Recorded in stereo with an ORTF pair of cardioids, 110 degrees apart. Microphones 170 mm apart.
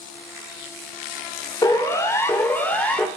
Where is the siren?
20° left, 5.5 m; by 3.1 s 10° left, 5.5 m.